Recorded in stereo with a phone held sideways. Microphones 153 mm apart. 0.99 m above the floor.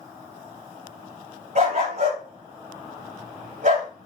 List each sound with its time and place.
1.6 s a dog barking: 55° right (ahead or behind), 5.5 m